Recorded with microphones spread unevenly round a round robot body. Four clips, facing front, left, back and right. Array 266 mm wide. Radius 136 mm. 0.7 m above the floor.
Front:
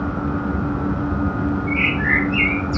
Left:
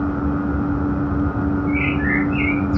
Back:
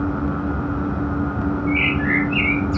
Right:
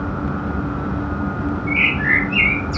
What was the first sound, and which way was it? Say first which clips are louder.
A bird: left 1 dB, back 1 dB; 95° right.